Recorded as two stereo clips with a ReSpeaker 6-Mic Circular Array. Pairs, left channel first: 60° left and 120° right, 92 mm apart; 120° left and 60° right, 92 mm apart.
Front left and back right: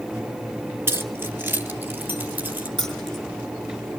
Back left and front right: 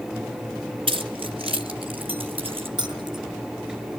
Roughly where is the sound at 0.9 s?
Ahead right.